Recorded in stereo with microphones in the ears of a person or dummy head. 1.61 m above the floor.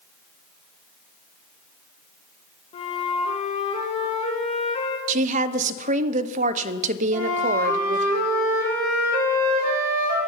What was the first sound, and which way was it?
A flute, 30° left (ahead or behind).